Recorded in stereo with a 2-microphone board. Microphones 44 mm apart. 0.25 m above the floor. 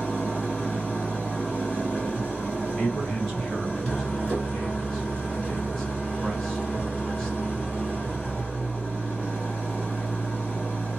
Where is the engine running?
20° left (ahead or behind), 1.5 m.